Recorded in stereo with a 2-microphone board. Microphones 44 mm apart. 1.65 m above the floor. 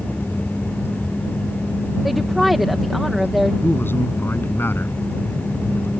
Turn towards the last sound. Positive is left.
turn(degrees=55)  # may be behind; listen again after turning